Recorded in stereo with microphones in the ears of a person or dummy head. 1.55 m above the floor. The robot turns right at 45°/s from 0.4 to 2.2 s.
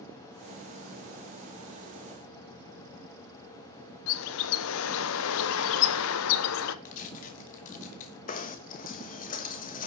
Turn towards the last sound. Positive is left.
turn(degrees=35)  # may be behind; listen again after turning